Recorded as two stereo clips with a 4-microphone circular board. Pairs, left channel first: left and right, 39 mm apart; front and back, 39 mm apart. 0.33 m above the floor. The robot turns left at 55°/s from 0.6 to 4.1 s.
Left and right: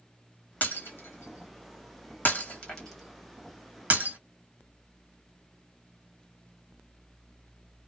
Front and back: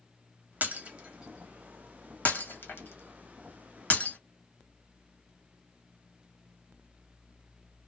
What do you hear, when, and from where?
0.6 s breaking glass: 135° left, 1.2 m; by 4.2 s 55° right, 1.2 m